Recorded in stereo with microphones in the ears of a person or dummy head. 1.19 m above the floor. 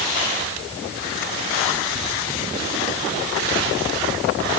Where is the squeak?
No squeak in this recording.